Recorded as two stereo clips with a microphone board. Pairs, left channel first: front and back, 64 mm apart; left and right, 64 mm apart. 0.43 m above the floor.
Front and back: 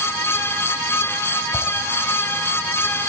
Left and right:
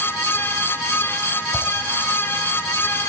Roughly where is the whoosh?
Ahead.